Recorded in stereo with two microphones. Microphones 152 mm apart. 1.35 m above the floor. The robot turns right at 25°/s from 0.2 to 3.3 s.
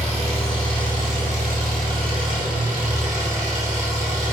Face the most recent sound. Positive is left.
turn(degrees=-60)